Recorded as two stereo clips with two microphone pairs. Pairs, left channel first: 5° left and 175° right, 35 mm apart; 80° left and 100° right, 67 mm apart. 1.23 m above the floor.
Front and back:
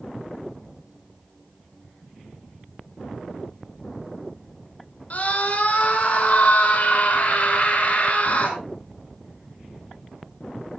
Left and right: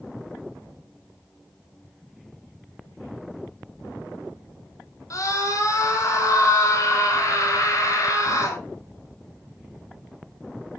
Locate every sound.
5.1 s a scream: 45° left, 6 m